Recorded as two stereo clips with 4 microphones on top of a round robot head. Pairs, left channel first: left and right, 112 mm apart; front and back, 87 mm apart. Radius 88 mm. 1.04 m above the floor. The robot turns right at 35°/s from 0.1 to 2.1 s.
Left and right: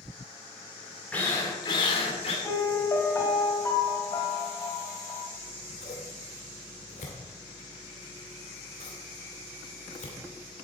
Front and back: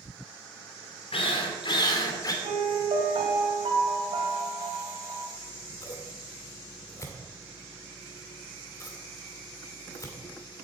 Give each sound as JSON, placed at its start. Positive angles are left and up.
{"t": 1.1, "sound": "a drill", "azimuth_deg": 10, "distance_m": 2.5}
{"t": 2.4, "sound": "a piano", "azimuth_deg": 155, "distance_m": 2.5}
{"t": 5.3, "sound": "scissors", "azimuth_deg": 50, "distance_m": 2.0}